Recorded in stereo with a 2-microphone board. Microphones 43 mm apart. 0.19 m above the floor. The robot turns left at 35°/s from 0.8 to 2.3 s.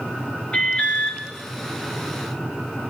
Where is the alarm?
30° left (ahead or behind), 3 m; by 1.2 s 20° left (ahead or behind), 3 m.